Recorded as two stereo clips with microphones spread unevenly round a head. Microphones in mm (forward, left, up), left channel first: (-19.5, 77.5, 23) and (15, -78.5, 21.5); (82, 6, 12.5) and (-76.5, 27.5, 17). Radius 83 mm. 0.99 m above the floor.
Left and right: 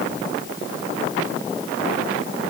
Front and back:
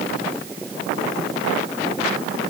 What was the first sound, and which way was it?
Only background noise.